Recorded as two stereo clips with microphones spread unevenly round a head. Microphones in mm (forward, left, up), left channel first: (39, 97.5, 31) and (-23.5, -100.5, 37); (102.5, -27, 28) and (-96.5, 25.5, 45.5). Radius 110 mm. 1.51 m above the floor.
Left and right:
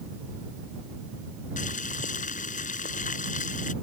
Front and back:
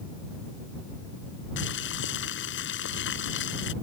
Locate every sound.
1.6 s boiling: 20° left